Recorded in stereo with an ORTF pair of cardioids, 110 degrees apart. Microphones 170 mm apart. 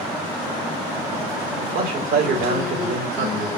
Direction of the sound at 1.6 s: 60° right.